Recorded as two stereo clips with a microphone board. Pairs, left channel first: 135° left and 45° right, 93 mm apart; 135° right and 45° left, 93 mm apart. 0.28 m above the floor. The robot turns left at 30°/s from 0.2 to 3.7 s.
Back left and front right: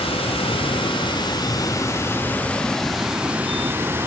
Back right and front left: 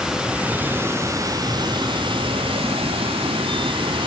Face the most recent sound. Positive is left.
turn(degrees=25)